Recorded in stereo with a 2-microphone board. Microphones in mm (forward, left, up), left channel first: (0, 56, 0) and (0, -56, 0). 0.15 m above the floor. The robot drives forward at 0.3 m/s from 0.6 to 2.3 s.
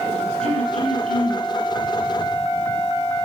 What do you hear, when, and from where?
0.4 s throat clearing: 70° right (ahead or behind), 3.5 m; by 1.5 s 65° right (ahead or behind), 3.5 m